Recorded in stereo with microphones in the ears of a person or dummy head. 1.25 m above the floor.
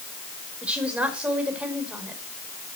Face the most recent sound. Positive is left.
turn(degrees=-10)  # may be behind; listen again after turning